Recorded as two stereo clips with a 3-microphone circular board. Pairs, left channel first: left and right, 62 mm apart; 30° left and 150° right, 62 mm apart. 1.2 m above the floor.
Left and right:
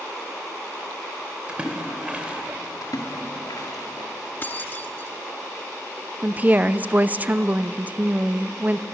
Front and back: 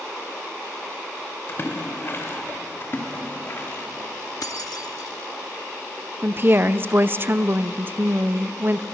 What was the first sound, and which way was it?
A splash, 20° right.